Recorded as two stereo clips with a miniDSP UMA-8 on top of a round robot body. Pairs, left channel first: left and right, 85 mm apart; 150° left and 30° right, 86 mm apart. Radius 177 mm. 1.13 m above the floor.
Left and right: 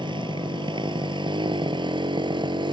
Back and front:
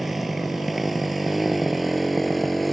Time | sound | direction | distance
0.0 | a motorcycle | 120° right | ?